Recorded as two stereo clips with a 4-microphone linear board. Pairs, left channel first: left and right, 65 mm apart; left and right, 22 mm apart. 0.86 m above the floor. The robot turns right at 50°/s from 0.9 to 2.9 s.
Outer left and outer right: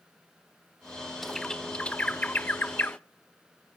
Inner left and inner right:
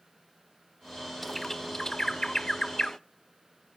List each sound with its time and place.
1.2 s a bird: centre (ahead or behind), 0.6 m; by 3.0 s 30° left (ahead or behind), 0.6 m